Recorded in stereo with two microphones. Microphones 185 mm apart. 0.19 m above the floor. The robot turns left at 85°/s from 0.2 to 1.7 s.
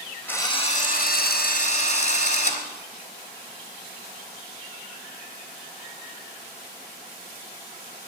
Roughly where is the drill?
Behind.